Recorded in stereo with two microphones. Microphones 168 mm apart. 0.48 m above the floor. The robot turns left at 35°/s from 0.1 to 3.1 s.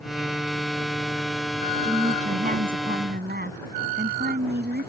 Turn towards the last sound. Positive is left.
turn(degrees=-75)